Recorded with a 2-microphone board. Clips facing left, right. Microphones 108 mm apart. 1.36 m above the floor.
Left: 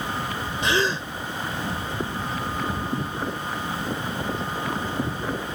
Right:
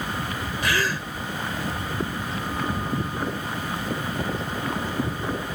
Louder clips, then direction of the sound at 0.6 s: Left 3 dB; 25° left (ahead or behind).